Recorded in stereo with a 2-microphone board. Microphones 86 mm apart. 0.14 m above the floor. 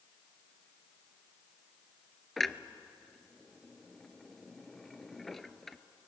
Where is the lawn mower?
No lawn mower in this recording.